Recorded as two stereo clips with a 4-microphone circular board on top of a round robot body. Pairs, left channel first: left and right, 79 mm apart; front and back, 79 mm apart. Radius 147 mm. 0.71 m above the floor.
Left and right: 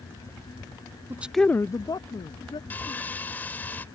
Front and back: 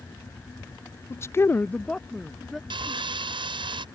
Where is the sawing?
160° left.